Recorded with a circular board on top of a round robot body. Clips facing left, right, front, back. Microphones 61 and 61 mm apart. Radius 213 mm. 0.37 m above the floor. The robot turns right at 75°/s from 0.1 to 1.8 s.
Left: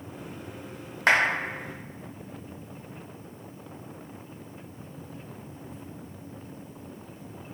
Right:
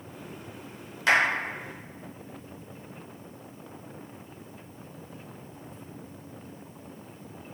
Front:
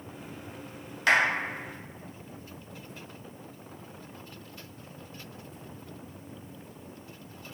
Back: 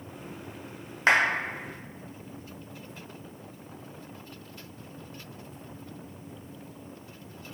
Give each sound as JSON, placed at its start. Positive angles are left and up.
{"t": 1.1, "sound": "a clap", "azimuth_deg": 125, "distance_m": 1.0}